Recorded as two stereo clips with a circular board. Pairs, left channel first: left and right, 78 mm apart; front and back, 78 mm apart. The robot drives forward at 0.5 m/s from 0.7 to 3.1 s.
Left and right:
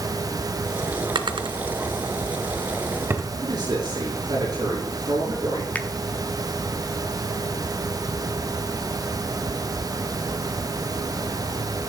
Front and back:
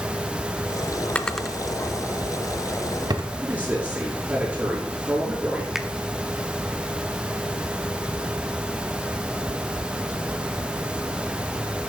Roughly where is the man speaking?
Right.